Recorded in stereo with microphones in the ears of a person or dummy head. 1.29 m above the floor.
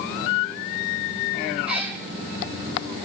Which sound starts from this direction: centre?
A cat meowing, at 1.7 s.